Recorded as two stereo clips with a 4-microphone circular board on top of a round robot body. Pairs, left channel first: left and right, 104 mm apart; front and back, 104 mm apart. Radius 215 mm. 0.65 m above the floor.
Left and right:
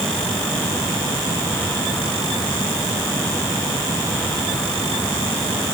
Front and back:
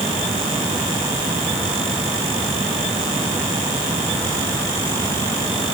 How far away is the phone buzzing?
I don't hear a phone buzzing.